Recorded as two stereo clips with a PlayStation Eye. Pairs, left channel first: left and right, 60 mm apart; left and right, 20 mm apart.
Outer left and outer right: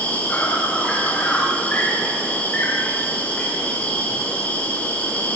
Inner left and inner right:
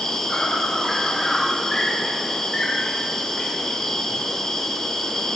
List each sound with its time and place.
0.0 s an insect: 20° left (ahead or behind), 5 m